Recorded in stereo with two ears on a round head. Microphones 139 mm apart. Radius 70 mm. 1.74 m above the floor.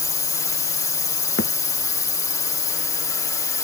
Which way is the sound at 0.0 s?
20° left (ahead or behind).